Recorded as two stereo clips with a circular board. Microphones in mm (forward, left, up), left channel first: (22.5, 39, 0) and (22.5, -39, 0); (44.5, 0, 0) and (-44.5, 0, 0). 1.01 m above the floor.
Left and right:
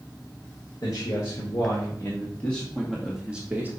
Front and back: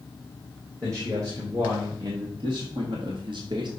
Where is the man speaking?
130° left, 2 m; by 3.7 s 155° right, 1.3 m.